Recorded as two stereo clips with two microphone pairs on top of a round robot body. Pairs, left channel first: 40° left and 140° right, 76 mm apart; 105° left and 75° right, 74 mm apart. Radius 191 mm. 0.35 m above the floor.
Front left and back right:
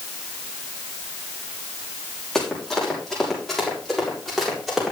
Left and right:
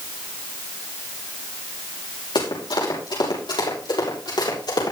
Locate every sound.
2.4 s running footsteps: 120° left, 6.5 m; by 4.9 s 125° left, 8.5 m